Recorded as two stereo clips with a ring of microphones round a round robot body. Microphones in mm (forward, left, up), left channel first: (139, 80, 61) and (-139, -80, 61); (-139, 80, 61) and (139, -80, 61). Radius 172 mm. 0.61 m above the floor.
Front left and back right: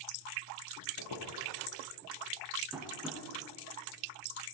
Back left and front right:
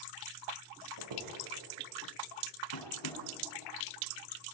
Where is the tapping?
120° left, 5 m.